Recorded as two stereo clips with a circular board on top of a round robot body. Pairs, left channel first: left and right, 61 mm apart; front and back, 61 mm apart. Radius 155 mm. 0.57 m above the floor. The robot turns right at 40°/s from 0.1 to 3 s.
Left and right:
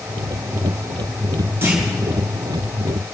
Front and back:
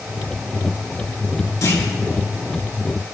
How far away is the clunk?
About 5.5 m.